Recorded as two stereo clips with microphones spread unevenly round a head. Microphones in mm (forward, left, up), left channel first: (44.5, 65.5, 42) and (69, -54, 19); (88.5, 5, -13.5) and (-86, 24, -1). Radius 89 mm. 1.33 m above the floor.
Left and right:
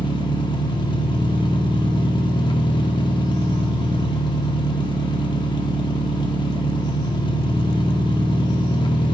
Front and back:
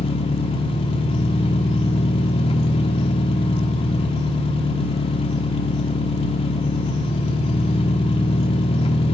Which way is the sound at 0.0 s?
55° left.